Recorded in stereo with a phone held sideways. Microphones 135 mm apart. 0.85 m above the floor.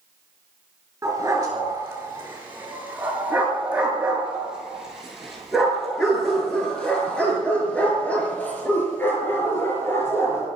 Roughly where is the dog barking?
Right.